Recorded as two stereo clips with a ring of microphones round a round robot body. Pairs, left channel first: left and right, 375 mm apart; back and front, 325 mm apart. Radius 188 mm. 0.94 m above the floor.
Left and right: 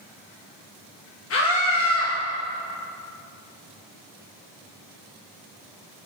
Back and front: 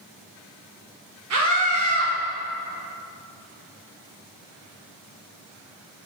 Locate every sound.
1.3 s a scream: 35° left, 1.0 m